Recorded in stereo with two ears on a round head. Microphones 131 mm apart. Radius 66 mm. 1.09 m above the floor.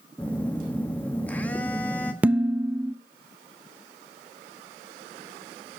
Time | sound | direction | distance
0.2 | a phone buzzing | 10° left (ahead or behind) | 1.1 m
2.2 | dishes clattering | 10° right (ahead or behind) | 0.7 m